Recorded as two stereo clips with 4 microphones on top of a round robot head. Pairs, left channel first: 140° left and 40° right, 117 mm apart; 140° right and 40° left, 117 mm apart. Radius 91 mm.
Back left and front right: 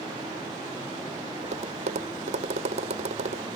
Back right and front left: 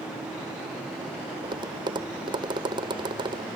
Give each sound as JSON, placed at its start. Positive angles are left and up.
{"t": 1.4, "sound": "tapping", "azimuth_deg": -10}